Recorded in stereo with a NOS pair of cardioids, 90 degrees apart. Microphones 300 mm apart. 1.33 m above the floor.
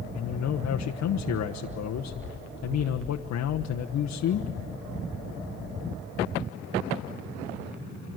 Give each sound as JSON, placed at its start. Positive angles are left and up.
{"t": 0.1, "sound": "a man speaking", "azimuth_deg": 65, "distance_m": 1.1}